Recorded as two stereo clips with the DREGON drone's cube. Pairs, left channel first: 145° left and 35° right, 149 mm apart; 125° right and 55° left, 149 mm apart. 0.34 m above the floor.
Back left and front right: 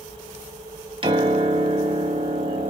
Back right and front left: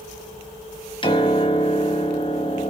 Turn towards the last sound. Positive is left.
turn(degrees=-80)